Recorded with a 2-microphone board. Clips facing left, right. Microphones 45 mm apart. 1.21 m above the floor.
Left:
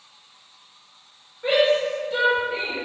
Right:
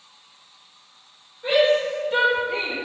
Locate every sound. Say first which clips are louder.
1.4 s a shout: right 1 dB; 20° left (ahead or behind), 1.0 m; by 2.7 s 65° right (ahead or behind), 0.9 m